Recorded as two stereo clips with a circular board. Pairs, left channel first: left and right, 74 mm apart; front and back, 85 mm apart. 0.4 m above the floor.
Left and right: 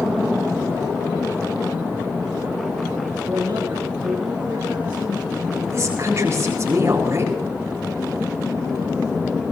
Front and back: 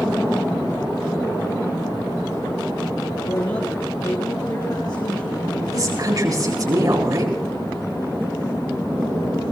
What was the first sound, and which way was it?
A man speaking, 35° right.